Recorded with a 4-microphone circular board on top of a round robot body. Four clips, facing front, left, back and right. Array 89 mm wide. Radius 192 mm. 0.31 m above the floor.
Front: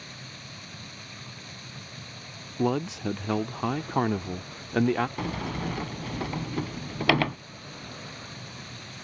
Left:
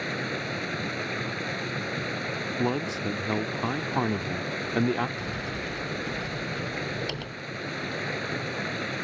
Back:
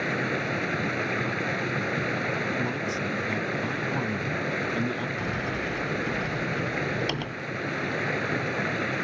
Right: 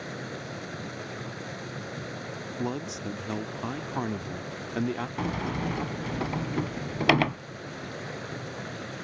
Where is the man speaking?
30° left.